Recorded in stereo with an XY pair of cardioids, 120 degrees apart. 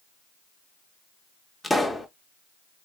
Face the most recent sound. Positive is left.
turn(degrees=5)